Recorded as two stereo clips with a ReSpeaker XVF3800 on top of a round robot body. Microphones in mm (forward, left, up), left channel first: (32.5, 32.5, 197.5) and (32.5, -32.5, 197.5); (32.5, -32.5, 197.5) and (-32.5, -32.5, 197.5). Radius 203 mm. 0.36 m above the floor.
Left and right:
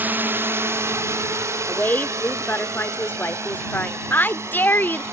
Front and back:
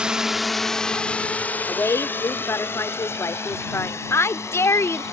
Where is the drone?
115° right; by 5.1 s 45° right.